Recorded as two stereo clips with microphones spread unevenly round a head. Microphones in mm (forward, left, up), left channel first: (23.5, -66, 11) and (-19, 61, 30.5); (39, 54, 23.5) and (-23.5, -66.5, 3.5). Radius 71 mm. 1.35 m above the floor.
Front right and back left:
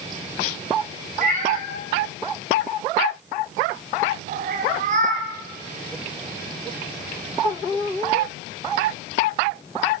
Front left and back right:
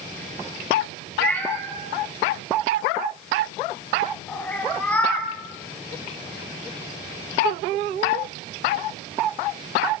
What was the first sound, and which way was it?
A cat meowing, 140° left.